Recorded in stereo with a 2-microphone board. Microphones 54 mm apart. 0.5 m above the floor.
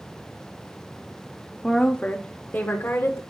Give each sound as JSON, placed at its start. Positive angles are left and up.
{"t": 1.6, "sound": "a woman speaking", "side_deg": 10, "distance_m": 0.7}